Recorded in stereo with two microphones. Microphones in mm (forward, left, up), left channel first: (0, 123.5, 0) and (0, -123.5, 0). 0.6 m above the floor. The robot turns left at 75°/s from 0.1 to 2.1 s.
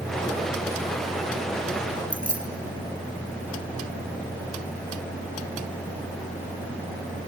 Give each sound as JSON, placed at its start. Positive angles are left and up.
{"t": 2.1, "sound": "keys jangling", "side_deg": -35, "distance_m": 3.5}